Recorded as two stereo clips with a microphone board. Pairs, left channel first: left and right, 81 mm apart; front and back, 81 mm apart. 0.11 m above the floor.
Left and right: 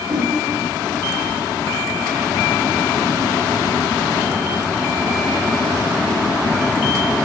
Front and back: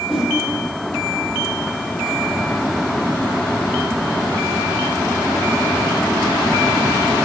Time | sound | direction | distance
0.1 | a whoosh | 90° right | 4 m